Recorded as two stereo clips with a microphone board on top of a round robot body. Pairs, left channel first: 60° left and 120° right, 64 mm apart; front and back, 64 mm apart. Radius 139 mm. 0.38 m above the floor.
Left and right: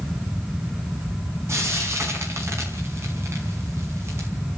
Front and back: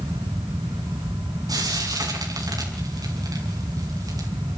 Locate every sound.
1.5 s frying: 165° right, 5.5 m